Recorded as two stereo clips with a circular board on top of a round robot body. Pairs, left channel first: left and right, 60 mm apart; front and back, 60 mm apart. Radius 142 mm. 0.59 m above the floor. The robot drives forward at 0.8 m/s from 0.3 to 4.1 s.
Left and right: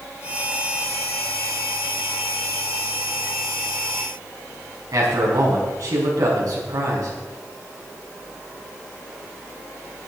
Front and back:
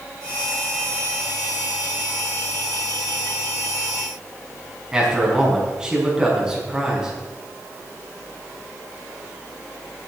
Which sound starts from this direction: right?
A man speaking, at 4.9 s.